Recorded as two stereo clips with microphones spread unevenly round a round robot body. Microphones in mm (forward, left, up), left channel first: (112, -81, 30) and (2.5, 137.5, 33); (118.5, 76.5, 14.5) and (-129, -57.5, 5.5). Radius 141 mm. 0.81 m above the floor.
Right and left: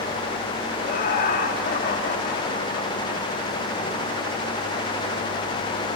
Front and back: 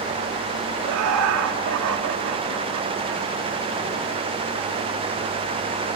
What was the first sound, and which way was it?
Laughter, 120° right.